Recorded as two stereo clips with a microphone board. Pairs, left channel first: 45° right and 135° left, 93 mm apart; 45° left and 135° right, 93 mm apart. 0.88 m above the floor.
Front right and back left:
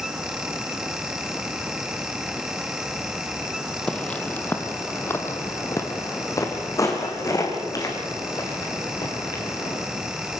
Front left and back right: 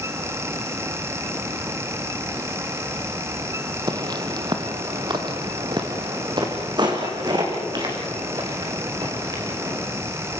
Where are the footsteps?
120° right, 1.3 m; by 9.8 s 95° right, 4.5 m.